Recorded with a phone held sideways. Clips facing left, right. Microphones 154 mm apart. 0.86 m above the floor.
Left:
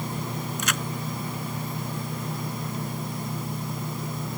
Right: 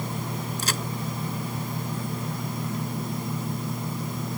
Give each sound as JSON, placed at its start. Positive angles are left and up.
{"t": 0.6, "sound": "a crack", "side_deg": -35}